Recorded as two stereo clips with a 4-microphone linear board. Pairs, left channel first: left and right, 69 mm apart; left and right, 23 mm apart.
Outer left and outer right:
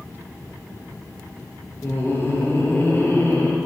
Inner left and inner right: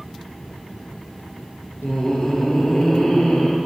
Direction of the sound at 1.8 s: 30° left (ahead or behind).